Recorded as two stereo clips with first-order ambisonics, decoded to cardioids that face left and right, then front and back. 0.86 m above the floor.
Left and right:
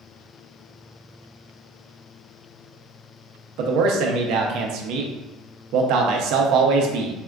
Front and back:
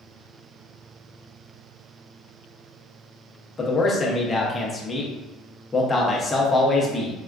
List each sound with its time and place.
3.6 s a man speaking: 75° right, 0.5 m